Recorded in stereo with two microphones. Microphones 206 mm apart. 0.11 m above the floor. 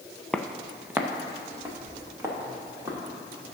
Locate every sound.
0.3 s footsteps: 5° left (ahead or behind), 0.7 m; by 3.0 s 15° right (ahead or behind), 3.5 m